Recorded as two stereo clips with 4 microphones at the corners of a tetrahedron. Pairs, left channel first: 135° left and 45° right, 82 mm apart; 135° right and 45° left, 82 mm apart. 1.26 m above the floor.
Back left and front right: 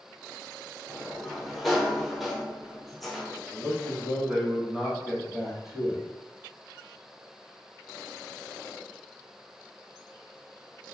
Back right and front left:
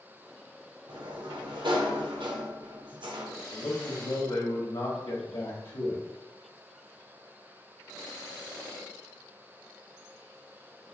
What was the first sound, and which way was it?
A sliding door, 45° left.